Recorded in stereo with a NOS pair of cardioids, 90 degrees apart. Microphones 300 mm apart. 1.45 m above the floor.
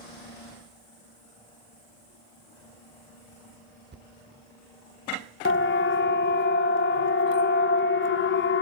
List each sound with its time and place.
3.9 s a thud: 35° right, 3 m
5.5 s a siren: 40° left, 2.5 m